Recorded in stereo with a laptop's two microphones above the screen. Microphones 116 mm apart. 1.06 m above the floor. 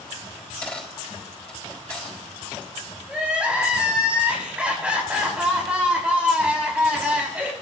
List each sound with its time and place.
0.4 s a dropped coin: 10° left (ahead or behind), 5 m
3.1 s crying: 10° right (ahead or behind), 7 m